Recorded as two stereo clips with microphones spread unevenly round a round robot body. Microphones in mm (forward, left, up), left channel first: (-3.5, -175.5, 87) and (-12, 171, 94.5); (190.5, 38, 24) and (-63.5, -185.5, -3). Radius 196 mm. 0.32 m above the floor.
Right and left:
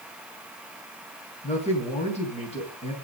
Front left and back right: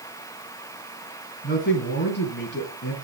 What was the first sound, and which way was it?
A man speaking, 20° right.